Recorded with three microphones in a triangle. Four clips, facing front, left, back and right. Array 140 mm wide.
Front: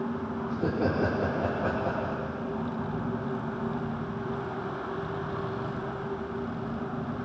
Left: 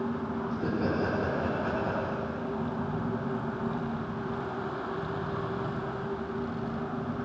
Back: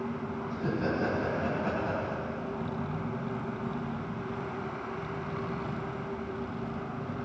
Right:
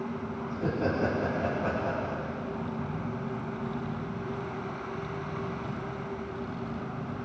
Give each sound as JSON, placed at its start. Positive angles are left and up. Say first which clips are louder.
{"t": 0.5, "sound": "laughter", "louder": "right 1 dB, front 3 dB", "azimuth_deg": -5, "distance_m": 5.5}